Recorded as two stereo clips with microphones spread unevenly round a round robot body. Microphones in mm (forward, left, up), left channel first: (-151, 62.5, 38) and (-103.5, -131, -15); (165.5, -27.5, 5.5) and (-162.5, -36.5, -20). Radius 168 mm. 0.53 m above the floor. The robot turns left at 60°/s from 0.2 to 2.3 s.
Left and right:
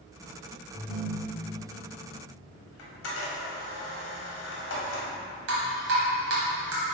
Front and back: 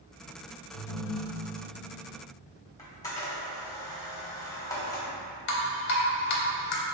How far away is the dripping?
About 0.9 m.